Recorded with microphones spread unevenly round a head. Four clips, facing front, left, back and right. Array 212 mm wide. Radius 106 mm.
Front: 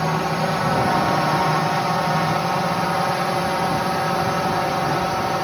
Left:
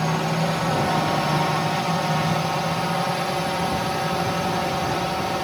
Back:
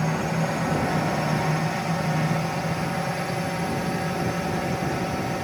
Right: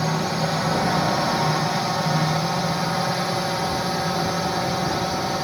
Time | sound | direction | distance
0.0 | a drone | 5° left | ?